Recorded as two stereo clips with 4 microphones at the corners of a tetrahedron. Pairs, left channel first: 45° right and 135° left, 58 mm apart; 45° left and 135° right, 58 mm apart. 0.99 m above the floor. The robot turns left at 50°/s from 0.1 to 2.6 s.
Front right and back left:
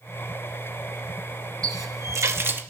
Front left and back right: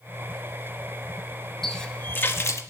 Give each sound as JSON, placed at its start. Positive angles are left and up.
{"t": 1.6, "sound": "a running tap", "azimuth_deg": 130, "distance_m": 0.9}